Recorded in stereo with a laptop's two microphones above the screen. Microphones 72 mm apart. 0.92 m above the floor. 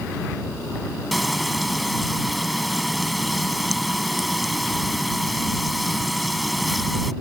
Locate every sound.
1.1 s frying: centre (ahead or behind)